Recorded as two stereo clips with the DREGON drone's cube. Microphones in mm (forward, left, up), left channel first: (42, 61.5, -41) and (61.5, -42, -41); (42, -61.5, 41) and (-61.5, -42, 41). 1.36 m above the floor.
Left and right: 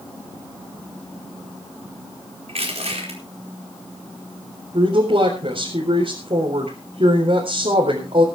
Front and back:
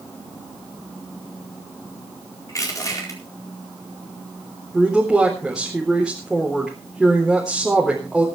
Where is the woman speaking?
105° right, 4 m.